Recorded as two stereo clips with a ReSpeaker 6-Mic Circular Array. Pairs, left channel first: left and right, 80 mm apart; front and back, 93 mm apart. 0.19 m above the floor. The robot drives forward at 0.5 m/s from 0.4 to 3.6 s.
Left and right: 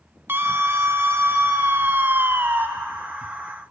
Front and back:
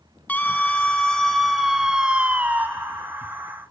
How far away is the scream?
About 1.8 m.